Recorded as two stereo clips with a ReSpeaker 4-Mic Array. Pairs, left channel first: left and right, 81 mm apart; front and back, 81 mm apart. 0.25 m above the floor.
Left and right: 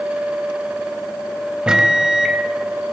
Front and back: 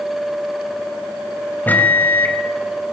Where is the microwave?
25° right, 1.0 m.